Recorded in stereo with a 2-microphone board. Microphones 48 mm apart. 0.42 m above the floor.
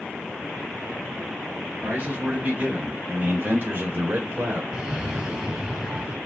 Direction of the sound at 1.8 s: 30° right (ahead or behind).